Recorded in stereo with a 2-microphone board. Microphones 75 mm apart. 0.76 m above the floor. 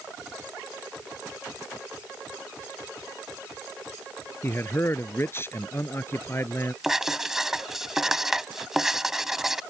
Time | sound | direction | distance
4.4 | a man speaking | 30° left (ahead or behind) | ?
6.8 | writing | 5° right (ahead or behind) | ?